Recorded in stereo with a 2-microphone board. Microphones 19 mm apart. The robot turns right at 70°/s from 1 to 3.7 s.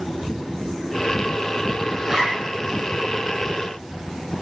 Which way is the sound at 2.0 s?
25° right (ahead or behind).